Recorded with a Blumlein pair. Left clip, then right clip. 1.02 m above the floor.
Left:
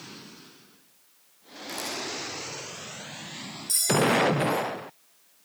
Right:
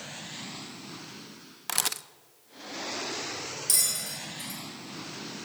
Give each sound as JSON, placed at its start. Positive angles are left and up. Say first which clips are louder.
{"t": 1.7, "sound": "a camera shutter", "louder": "right 2 dB", "azimuth_deg": -55, "distance_m": 0.6}
{"t": 3.7, "sound": "a bell", "louder": "left 7 dB", "azimuth_deg": -65, "distance_m": 5.5}